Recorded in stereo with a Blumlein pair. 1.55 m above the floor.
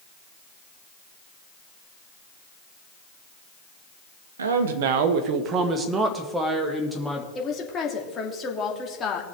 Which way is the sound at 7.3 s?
25° left.